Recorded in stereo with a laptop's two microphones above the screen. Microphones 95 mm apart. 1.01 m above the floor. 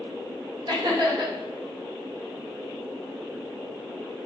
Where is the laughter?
50° right (ahead or behind), 1.1 m.